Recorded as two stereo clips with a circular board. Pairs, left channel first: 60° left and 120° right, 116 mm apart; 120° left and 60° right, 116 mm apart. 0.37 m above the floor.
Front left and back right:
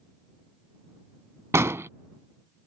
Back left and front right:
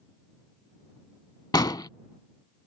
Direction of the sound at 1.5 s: 175° left.